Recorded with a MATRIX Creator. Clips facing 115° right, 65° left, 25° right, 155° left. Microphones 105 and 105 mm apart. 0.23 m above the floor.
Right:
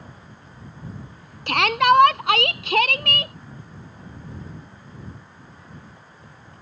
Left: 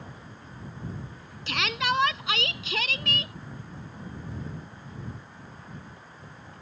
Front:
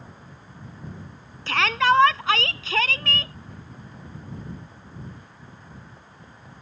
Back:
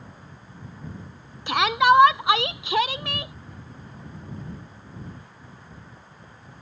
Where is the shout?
130° right.